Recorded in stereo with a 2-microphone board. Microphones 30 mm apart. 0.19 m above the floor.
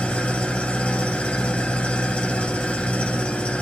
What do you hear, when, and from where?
0.0 s an engine running: 45° left (ahead or behind), 1.2 m